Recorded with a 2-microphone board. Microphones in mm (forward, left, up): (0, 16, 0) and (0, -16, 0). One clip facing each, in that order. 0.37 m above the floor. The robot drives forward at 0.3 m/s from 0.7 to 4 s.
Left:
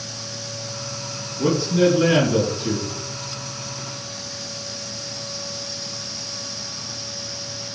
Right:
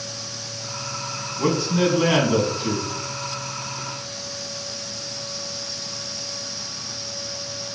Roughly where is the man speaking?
Right.